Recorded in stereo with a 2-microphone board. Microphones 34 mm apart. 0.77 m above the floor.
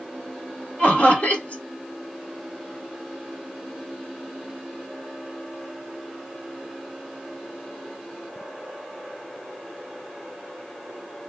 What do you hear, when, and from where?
0.8 s laughter: 55° left (ahead or behind), 1.6 m